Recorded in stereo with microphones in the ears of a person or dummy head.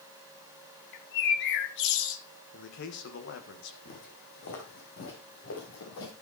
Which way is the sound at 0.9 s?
65° left (ahead or behind).